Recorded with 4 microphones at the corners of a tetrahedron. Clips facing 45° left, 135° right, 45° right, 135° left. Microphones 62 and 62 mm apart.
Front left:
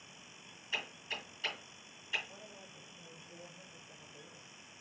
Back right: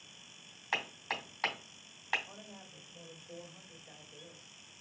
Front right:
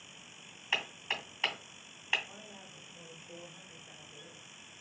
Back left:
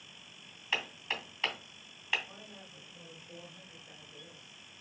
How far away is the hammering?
About 2.5 m.